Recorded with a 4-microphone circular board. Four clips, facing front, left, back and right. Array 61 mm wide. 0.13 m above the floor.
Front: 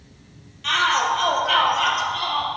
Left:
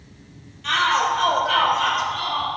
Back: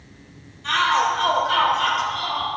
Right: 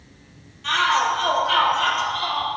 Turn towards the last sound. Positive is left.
turn(degrees=-15)